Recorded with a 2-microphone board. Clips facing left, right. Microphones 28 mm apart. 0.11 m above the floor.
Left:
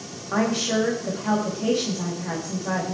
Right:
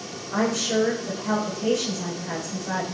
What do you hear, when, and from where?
0.3 s a woman speaking: 45° left (ahead or behind), 6 m